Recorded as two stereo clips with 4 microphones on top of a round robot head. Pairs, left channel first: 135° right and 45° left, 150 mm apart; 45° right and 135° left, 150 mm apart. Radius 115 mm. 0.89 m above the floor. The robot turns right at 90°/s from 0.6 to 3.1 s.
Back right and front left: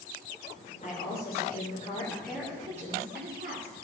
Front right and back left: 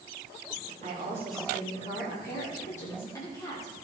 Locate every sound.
0.8 s a woman speaking: straight behind, 3 m; by 3.7 s 25° left, 3 m